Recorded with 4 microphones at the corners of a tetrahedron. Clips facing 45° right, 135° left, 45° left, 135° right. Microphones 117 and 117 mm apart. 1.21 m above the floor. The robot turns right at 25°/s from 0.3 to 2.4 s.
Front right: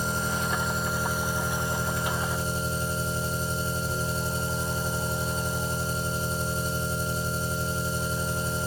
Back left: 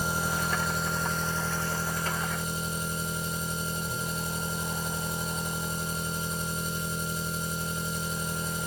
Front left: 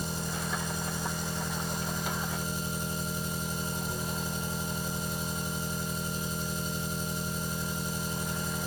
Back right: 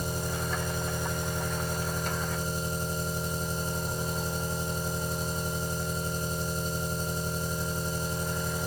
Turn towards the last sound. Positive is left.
turn(degrees=-95)